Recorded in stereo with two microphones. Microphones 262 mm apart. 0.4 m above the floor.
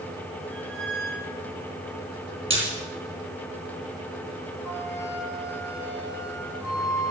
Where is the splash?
50° right (ahead or behind), 4.5 m.